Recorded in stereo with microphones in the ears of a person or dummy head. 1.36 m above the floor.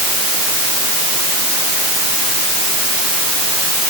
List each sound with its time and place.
Only background noise.